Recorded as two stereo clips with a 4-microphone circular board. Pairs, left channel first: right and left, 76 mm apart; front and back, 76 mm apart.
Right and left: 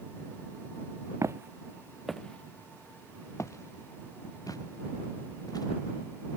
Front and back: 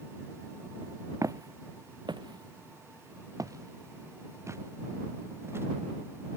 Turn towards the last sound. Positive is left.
turn(degrees=-125)